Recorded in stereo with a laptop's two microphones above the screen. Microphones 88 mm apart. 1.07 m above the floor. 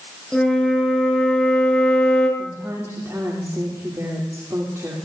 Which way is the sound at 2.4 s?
35° right (ahead or behind).